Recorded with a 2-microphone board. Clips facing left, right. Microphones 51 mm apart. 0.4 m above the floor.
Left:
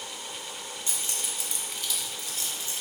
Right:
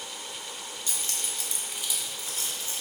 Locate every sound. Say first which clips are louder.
0.9 s keys jangling: even; 25° left (ahead or behind), 0.8 m; by 2.8 s 40° right (ahead or behind), 0.9 m